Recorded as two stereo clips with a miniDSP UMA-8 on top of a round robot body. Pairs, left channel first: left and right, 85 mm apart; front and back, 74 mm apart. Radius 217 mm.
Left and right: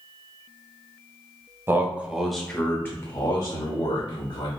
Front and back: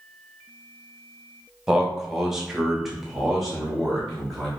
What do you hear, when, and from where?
1.7 s a man speaking: 105° right, 1.2 m; by 4.5 s 85° left, 2.0 m